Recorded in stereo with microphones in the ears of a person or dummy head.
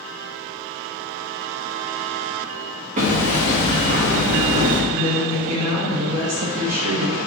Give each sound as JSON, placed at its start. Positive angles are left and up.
{"t": 3.0, "sound": "hammering", "side_deg": -40, "distance_m": 0.8}
{"t": 4.9, "sound": "a woman speaking", "side_deg": -85, "distance_m": 1.7}